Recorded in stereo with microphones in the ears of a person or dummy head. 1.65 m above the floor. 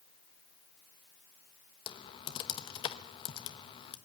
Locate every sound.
1.9 s typing on a keyboard: 35° left (ahead or behind), 1.1 m